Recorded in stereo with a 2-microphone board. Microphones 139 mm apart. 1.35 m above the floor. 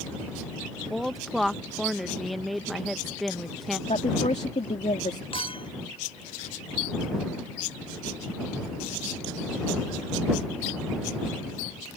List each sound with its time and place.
0.9 s a woman speaking: centre (ahead or behind)
3.9 s a woman speaking: 55° left (ahead or behind)
5.3 s a clink: 40° left (ahead or behind)